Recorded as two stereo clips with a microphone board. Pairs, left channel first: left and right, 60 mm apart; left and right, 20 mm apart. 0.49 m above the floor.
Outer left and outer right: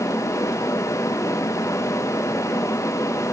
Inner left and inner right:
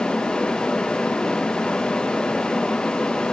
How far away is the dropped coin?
I don't hear a dropped coin.